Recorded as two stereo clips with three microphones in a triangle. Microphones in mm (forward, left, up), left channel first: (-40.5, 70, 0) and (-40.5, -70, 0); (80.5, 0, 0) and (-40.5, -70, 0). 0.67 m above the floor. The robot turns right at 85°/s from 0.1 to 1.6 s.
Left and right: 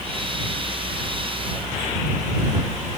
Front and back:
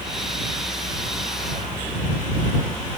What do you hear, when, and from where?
Only background noise.